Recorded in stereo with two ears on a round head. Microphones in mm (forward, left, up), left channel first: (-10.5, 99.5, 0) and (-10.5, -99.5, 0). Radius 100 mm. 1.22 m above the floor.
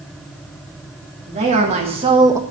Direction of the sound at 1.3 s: 30° right (ahead or behind).